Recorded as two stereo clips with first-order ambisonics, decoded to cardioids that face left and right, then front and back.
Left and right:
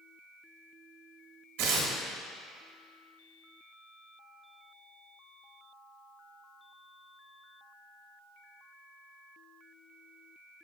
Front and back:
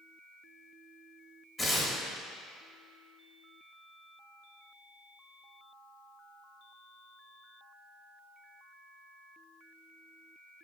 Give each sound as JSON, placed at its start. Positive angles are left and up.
{"t": 1.6, "sound": "tearing paper", "azimuth_deg": -75, "distance_m": 1.2}